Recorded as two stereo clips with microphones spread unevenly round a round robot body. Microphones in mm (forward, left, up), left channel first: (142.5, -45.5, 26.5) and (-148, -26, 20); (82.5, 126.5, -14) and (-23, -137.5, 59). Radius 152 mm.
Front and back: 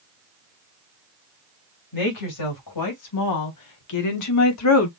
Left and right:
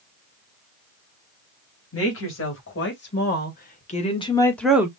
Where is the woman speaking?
25° left, 3 m; by 4.9 s 20° right, 1.0 m.